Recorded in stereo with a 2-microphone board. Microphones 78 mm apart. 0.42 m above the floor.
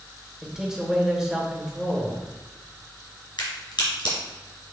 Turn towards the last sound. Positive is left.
turn(degrees=70)  # may be behind; listen again after turning